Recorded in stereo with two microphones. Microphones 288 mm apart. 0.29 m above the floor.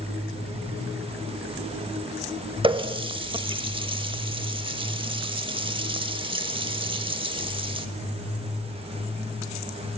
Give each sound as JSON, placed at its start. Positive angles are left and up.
{"t": 2.6, "sound": "a running tap", "side_deg": -20, "distance_m": 0.6}